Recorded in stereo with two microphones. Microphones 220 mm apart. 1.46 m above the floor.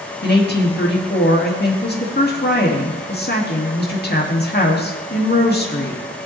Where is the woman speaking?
45° left (ahead or behind), 2.5 m.